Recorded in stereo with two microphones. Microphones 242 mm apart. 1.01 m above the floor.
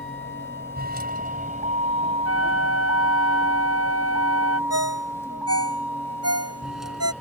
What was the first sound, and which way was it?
A vehicle, 55° right (ahead or behind).